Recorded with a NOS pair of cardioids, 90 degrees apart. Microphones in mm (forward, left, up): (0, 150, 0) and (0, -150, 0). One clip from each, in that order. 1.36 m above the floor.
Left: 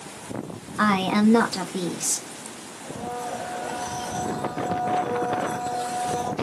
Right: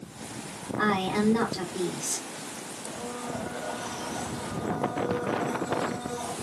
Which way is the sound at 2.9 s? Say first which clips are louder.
Left 6 dB; 50° left.